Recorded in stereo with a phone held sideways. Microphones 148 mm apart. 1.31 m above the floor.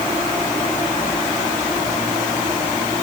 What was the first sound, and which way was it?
Only background noise.